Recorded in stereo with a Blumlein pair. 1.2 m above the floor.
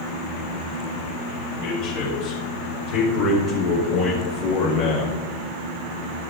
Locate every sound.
1.6 s a man speaking: 45° left, 4 m; by 5.2 s 30° left, 1.1 m